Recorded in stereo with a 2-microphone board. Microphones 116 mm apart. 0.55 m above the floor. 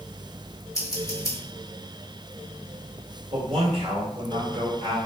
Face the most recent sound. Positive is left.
turn(degrees=-55)  # may be behind; listen again after turning